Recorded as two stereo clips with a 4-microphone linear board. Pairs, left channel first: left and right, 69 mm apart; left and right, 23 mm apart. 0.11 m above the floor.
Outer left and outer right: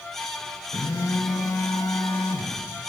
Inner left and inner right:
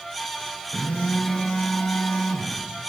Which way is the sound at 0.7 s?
60° left (ahead or behind).